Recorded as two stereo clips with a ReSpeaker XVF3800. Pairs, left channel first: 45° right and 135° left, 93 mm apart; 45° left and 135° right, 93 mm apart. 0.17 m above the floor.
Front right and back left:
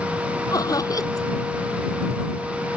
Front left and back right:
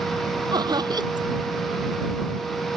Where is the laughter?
95° right.